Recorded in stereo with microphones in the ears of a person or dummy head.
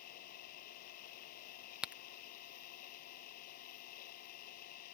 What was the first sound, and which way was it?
An engine running, 50° left (ahead or behind).